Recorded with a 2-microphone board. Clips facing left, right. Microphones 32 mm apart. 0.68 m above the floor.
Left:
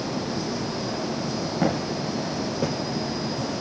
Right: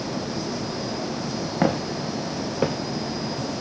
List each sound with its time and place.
1.6 s footsteps: 40° right (ahead or behind), 3 m